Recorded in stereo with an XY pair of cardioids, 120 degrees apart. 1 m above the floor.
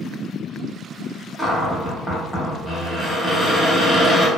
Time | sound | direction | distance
1.4 | a cupboard door | 10° right | 0.9 m